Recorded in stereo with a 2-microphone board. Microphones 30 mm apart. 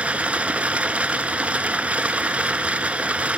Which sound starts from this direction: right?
Running water, at 0.0 s.